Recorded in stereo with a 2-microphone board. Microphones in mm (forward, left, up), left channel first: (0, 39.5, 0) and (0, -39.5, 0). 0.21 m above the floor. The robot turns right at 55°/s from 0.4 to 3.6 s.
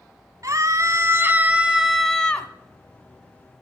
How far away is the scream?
About 1.3 m.